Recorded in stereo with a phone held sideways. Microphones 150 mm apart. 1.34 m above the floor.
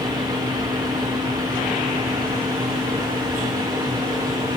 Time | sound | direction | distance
0.0 | a fan | 25° right (ahead or behind) | 0.9 m